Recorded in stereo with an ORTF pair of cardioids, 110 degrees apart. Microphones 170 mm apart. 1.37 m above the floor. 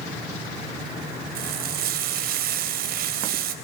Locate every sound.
1.4 s frying: 65° right, 3.5 m